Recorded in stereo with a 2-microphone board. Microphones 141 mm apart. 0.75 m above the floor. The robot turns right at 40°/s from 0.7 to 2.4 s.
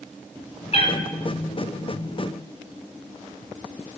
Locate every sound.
0.7 s a cat meowing: 50° left (ahead or behind), 1.1 m; by 0.9 s 40° left (ahead or behind), 1.1 m